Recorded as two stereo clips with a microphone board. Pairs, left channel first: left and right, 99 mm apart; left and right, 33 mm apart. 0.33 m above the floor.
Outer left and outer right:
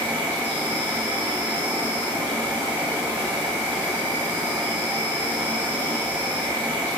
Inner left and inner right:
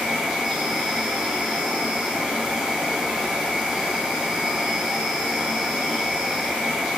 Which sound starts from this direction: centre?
An insect, at 0.0 s.